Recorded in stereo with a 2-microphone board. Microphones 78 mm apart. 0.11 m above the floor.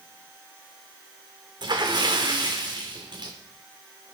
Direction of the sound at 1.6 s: 60° right (ahead or behind).